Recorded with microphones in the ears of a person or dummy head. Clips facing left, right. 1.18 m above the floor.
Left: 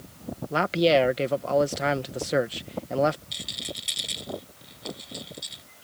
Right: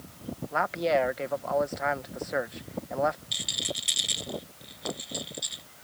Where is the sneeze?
I don't hear a sneeze.